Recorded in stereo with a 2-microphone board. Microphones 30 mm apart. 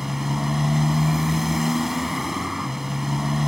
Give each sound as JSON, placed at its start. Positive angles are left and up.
{"t": 0.0, "sound": "a motorcycle", "side_deg": -10}